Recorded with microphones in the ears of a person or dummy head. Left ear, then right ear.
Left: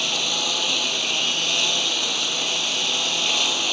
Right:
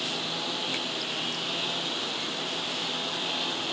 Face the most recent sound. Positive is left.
turn(degrees=80)